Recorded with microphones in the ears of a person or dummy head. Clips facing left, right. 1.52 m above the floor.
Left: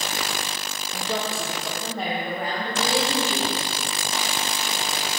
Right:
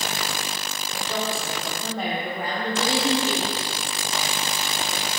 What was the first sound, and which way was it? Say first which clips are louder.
A woman speaking: even; 50° left (ahead or behind).